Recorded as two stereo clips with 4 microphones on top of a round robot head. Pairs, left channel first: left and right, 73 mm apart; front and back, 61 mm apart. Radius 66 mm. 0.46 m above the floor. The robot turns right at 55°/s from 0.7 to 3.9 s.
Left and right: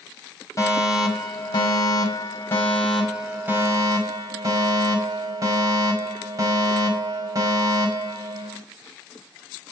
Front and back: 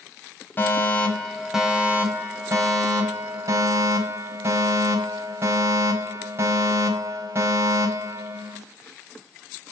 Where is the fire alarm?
55° left, 5 m; by 8.6 s 130° right, 5 m.